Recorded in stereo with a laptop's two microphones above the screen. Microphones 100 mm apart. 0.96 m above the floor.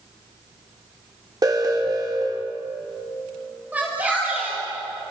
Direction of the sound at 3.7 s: 15° right (ahead or behind).